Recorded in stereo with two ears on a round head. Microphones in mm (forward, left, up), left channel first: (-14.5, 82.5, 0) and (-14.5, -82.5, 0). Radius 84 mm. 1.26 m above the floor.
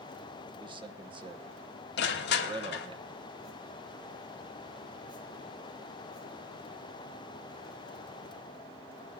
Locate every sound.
0.6 s a man speaking: 30° right (ahead or behind), 1.2 m
2.0 s crushing: 65° left (ahead or behind), 1.4 m